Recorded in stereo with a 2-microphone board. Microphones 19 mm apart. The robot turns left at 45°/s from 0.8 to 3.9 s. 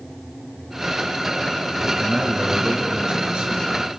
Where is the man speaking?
30° right, 4.5 m; by 3.7 s 110° right, 4.5 m.